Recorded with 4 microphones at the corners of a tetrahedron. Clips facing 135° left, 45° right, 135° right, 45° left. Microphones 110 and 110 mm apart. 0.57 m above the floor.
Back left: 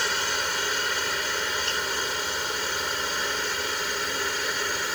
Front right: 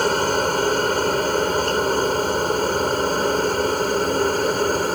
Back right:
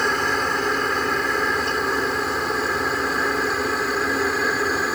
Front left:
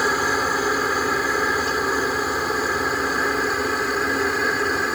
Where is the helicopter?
35° right; by 5.0 s 45° right.